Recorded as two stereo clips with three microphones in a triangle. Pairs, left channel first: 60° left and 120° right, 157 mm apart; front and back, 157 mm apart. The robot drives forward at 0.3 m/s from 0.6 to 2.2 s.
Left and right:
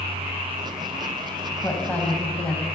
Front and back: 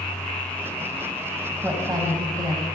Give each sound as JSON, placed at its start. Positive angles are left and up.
{"t": 1.6, "sound": "a woman speaking", "azimuth_deg": 125, "distance_m": 1.3}